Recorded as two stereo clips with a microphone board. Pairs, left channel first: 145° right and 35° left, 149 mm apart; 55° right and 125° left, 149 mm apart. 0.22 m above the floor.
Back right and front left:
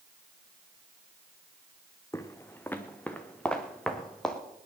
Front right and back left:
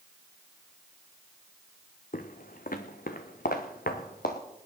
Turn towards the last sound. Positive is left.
turn(degrees=-60)